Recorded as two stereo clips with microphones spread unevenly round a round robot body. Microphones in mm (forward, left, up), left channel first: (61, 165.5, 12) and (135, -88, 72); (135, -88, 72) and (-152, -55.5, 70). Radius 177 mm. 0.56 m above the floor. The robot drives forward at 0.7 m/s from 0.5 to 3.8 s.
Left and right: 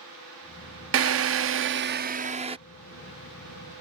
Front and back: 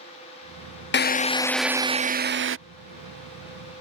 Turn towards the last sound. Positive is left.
turn(degrees=-165)